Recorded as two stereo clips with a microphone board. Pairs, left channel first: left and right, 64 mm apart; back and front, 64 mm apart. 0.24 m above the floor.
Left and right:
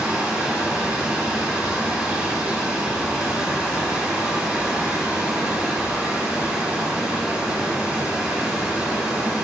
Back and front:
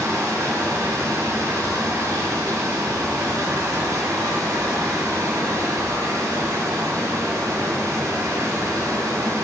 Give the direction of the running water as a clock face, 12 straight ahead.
1 o'clock.